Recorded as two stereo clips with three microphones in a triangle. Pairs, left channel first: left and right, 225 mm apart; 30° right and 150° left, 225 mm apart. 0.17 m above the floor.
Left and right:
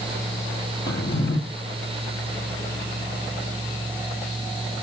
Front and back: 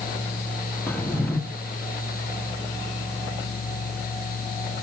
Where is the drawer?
50° left, 2.5 m.